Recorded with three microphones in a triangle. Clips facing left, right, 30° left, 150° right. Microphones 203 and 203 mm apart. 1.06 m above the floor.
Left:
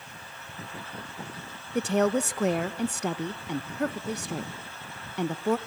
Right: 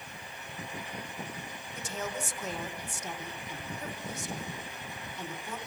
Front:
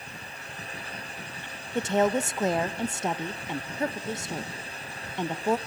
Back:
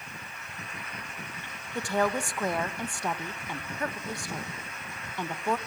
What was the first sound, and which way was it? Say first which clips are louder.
A woman speaking: left 14 dB, front 4 dB; 95° left.